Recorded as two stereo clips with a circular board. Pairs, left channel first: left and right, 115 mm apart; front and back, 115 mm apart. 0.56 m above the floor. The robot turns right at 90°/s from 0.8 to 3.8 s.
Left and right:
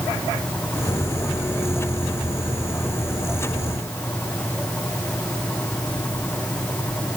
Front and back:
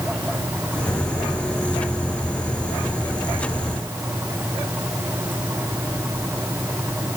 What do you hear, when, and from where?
Only background noise.